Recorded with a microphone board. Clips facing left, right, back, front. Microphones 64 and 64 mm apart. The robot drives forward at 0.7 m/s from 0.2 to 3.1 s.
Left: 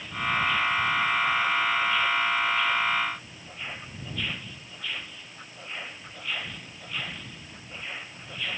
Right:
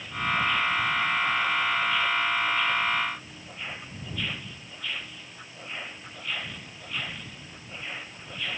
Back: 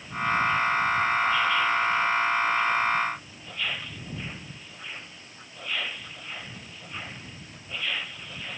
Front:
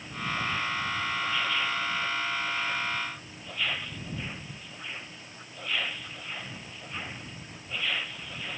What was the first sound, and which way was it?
Only background noise.